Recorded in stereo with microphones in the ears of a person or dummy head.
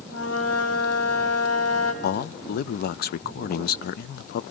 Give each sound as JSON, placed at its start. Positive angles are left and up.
{"t": 0.1, "sound": "a flute", "side_deg": 65, "distance_m": 7.5}
{"t": 2.0, "sound": "a man speaking", "side_deg": 45, "distance_m": 0.6}